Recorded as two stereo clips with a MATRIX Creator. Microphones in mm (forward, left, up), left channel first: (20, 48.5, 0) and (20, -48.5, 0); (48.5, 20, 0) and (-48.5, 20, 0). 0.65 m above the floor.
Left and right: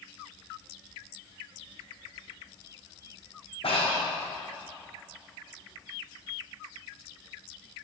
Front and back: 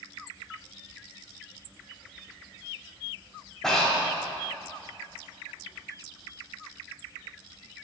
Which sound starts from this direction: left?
Breathing, at 3.6 s.